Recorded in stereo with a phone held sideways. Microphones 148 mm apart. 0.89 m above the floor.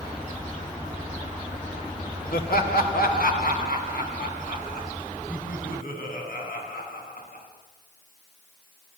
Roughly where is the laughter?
Left.